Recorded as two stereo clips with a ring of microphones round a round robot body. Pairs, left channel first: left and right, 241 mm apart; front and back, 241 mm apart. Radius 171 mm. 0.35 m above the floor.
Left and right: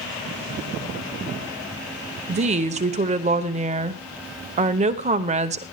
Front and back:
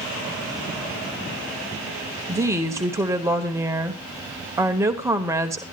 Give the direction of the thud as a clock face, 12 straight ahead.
No thud in this recording.